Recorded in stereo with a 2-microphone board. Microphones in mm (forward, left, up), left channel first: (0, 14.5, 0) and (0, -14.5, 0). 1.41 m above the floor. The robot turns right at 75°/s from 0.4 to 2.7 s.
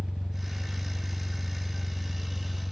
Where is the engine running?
30° right (ahead or behind), 0.8 m; by 2.7 s 30° left (ahead or behind), 0.8 m.